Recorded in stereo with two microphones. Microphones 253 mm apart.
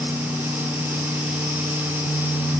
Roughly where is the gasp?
I don't hear a gasp.